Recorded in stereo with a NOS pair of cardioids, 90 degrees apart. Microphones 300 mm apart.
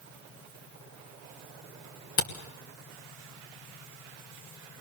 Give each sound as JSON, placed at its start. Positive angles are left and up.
{"t": 2.2, "sound": "a camera shutter", "azimuth_deg": 45, "distance_m": 3.0}